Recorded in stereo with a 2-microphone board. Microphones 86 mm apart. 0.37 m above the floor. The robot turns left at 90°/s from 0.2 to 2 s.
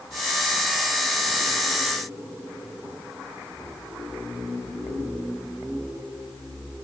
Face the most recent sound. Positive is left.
No sound to turn to.